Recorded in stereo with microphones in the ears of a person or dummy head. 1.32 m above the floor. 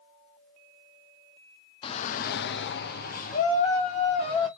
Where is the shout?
30° left (ahead or behind), 0.6 m.